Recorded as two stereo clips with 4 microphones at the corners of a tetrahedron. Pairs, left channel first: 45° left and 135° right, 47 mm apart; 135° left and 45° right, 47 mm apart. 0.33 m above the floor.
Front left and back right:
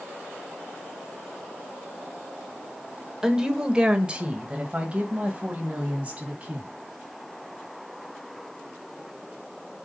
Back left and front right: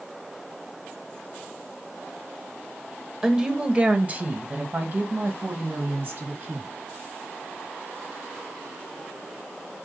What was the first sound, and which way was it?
A woman speaking, 90° right.